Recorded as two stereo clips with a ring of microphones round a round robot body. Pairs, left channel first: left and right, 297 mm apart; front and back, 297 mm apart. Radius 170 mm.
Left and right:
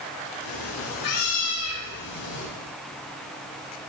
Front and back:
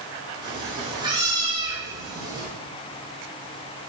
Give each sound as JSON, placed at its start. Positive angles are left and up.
{"t": 0.4, "sound": "a cat meowing", "azimuth_deg": 105, "distance_m": 6.0}